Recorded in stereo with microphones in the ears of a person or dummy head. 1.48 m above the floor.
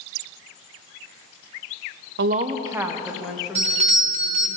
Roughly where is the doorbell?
Right.